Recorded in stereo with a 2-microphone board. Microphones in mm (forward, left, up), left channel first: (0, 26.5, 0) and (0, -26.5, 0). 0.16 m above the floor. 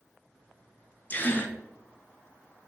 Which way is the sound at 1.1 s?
35° left (ahead or behind).